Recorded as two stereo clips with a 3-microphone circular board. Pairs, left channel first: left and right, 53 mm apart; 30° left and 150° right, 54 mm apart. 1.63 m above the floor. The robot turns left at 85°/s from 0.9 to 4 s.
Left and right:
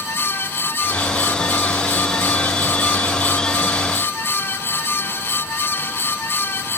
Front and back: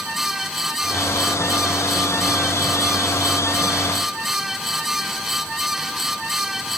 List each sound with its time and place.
Only background noise.